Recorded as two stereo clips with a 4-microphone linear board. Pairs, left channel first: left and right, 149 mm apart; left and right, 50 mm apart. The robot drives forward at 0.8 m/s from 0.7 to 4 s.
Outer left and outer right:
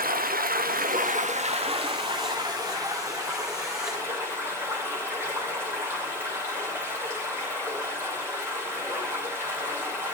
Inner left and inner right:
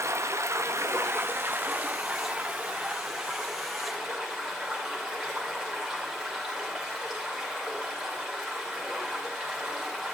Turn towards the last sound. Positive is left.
turn(degrees=-15)  # may be behind; listen again after turning